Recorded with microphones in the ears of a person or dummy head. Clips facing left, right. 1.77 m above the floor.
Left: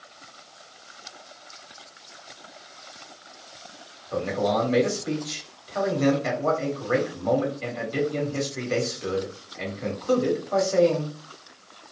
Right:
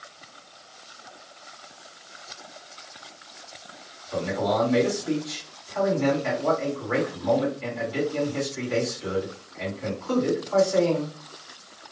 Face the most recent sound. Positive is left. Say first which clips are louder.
# left 1 dB
turn(degrees=70)  # may be behind; listen again after turning